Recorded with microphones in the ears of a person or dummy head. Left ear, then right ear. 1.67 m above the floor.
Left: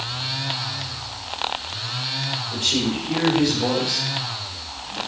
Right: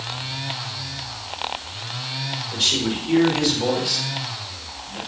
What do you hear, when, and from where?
2.5 s a man speaking: 55° right (ahead or behind), 5.5 m; by 5.0 s 40° right (ahead or behind), 5.5 m